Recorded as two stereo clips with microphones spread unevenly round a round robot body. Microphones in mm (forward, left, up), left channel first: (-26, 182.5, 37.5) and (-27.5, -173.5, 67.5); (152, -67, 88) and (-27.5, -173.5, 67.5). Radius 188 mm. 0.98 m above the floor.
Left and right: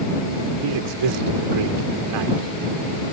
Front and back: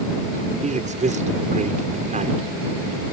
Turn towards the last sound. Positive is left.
turn(degrees=-95)